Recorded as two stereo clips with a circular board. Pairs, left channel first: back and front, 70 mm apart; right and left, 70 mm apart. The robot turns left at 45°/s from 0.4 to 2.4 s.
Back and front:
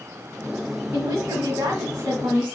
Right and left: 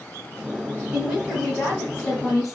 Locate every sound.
0.9 s a woman speaking: 15° left, 2.0 m; by 2.5 s 50° right, 2.0 m